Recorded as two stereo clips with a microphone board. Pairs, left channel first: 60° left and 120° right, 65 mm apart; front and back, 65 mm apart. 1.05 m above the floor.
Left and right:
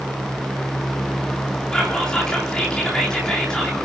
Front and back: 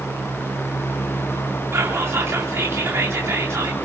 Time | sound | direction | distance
1.7 | whispering | 135° left | 3 m